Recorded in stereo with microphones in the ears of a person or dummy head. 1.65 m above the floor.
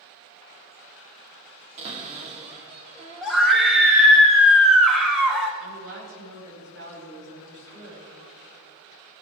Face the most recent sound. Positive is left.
turn(degrees=-65)  # may be behind; listen again after turning